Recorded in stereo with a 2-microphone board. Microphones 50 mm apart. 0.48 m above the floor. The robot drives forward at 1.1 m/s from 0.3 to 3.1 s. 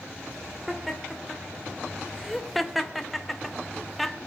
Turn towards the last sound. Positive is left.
turn(degrees=0)  # may be behind; listen again after turning